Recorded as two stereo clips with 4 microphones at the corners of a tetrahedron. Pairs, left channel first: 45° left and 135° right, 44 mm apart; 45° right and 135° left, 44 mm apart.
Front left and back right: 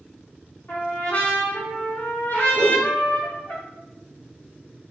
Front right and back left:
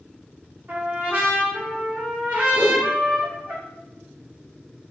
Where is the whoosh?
80° left, 1.0 m.